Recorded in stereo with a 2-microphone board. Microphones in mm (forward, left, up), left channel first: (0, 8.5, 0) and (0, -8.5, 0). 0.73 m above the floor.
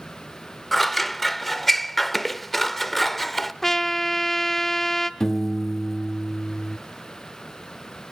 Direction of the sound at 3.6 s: 20° left (ahead or behind).